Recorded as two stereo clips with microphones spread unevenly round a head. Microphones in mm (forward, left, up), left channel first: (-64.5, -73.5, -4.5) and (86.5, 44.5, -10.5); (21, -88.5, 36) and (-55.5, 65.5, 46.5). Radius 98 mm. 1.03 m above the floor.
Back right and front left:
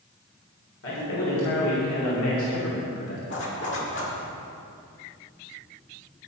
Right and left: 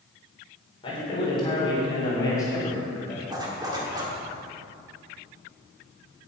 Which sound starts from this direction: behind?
A zipper, at 3.3 s.